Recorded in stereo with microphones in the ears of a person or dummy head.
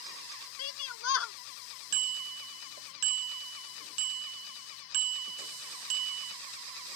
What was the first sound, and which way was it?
A shout, 80° left.